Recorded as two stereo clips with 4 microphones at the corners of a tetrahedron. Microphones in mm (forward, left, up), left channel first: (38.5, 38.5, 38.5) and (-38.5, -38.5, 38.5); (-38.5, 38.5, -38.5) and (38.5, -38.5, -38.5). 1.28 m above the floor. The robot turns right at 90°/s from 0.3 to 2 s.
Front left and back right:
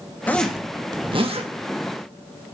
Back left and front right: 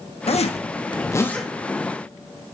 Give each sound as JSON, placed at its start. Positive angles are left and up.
{"t": 0.3, "sound": "a zipper", "azimuth_deg": 120, "distance_m": 1.1}